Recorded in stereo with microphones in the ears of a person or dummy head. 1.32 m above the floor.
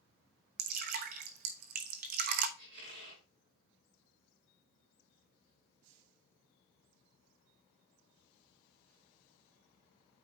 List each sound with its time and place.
0.6 s dripping: 45° right (ahead or behind), 0.9 m
2.6 s a squeak: 70° right (ahead or behind), 5.5 m